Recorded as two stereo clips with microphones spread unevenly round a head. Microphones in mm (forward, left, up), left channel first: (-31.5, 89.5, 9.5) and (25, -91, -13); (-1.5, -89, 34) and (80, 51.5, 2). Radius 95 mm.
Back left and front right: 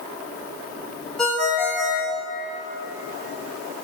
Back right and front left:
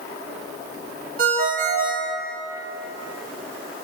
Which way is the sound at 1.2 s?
20° left.